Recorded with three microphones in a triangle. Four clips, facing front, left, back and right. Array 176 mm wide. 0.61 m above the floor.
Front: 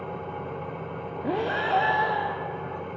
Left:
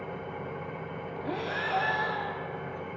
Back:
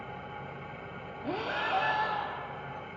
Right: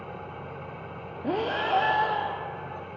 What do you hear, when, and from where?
0.0 s an engine running: 10° left, 1.7 m
1.2 s breathing: 35° right, 0.7 m